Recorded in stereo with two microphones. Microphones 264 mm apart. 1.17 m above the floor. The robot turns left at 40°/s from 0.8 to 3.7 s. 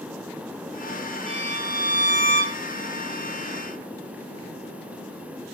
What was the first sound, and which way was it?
A violin, 45° right.